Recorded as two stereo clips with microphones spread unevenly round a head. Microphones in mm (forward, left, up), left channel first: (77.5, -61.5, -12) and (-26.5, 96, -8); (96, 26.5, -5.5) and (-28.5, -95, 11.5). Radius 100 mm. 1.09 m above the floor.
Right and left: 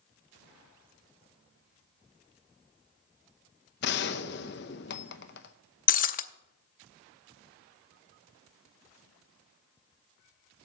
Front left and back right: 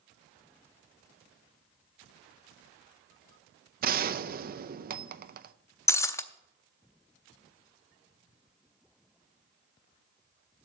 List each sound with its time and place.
3.8 s a gunshot: 95° right, 0.7 m
5.9 s breaking glass: 30° right, 0.6 m